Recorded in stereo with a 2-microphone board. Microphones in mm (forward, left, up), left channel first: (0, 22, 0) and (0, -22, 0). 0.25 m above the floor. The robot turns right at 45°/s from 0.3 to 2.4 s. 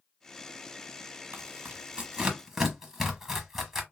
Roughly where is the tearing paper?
Right.